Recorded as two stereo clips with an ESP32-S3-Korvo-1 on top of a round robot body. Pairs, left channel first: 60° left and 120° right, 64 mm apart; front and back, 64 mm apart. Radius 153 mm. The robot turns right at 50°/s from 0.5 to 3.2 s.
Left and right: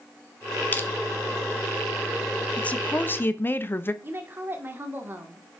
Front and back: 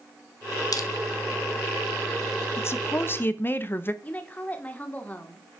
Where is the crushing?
Straight ahead, 1.3 m; by 0.9 s 5° left, 1.3 m.